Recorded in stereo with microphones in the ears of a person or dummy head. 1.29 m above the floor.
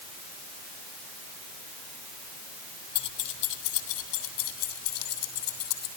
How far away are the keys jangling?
About 1.4 m.